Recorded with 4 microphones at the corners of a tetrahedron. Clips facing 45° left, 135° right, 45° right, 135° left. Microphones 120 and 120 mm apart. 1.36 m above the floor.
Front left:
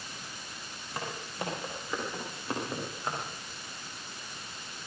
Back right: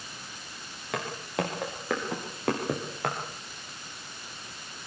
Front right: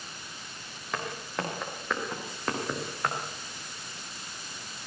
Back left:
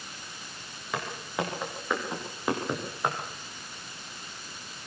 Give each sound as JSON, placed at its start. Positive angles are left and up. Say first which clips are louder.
{"t": 0.9, "sound": "footsteps", "louder": "back right 6 dB, back left 2 dB", "azimuth_deg": -140, "distance_m": 8.0}